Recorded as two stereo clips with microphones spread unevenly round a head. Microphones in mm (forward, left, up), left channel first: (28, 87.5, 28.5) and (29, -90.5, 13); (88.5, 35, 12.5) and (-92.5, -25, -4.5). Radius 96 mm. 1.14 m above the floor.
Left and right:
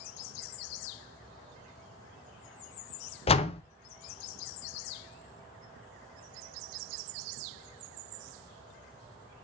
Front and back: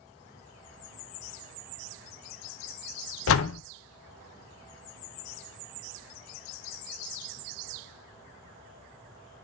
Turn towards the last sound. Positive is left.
turn(degrees=35)